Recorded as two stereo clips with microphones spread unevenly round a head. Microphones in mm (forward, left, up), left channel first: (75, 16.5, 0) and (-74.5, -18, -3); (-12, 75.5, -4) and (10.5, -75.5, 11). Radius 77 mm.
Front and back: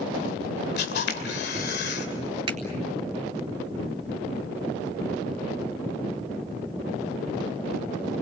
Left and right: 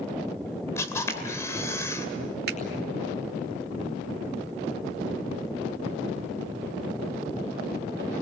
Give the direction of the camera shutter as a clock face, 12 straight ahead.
11 o'clock.